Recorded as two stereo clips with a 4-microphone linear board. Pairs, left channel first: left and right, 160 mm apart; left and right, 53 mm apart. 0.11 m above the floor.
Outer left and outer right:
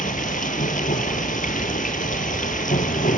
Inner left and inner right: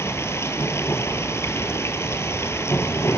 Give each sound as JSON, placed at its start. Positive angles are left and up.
{"t": 0.0, "sound": "running water", "side_deg": 60, "distance_m": 1.3}